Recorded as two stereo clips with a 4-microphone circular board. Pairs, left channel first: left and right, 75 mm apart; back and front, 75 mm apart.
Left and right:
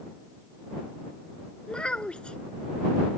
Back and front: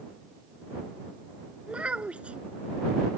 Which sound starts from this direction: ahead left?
A child speaking, at 1.7 s.